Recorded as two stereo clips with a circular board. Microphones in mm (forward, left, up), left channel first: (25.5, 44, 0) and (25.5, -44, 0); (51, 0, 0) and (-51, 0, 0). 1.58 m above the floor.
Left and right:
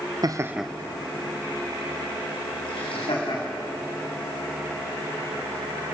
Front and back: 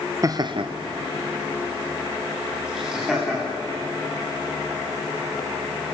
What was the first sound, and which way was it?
Laughter, 130° right.